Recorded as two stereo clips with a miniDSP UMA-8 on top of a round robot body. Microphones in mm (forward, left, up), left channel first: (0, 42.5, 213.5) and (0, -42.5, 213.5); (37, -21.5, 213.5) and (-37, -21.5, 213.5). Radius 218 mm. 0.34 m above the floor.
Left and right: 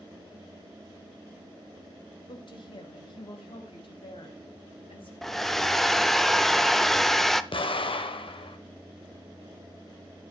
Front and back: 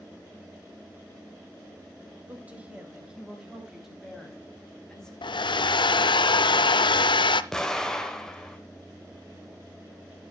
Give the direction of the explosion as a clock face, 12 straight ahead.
9 o'clock.